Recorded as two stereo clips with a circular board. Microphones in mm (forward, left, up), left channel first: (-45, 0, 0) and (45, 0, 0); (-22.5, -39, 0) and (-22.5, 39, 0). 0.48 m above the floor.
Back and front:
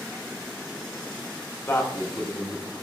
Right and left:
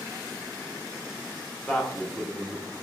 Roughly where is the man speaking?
Behind.